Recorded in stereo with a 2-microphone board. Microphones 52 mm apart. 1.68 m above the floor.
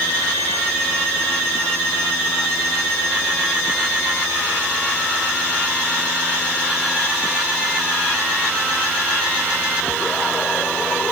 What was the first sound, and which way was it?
Only background noise.